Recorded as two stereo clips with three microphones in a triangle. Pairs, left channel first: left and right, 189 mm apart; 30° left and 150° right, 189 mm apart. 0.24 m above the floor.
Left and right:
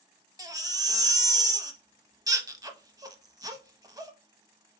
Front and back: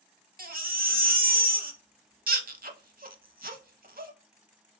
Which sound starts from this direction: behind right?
A baby crying, at 0.4 s.